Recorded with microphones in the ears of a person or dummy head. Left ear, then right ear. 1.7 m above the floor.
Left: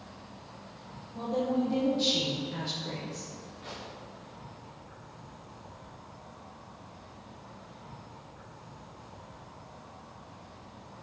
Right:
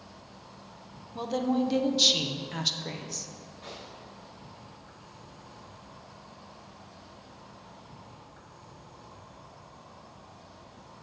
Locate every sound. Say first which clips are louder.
0.0 s an insect: left 1 dB; 75° right (ahead or behind), 2.5 m
1.1 s a woman speaking: right 1 dB; 65° right (ahead or behind), 1.0 m
3.6 s a gunshot: even; 30° right (ahead or behind), 2.5 m